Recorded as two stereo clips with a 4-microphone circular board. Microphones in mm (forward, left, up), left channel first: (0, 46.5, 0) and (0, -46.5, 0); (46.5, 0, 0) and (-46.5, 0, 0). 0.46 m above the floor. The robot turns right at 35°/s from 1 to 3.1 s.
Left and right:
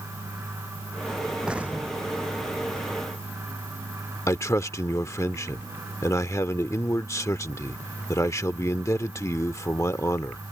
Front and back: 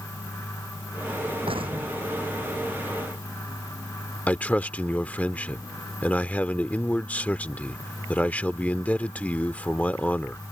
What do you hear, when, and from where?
1.5 s an explosion: 170° right; by 2.8 s 125° right
4.3 s a man speaking: 65° left